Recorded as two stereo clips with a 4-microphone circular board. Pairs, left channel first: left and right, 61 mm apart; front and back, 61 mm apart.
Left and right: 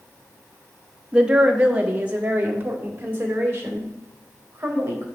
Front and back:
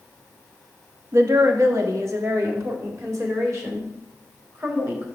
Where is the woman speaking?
160° right, 0.7 m; by 5.1 s 145° right, 3 m.